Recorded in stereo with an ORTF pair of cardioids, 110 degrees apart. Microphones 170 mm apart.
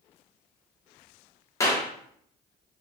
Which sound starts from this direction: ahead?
A clap, at 1.6 s.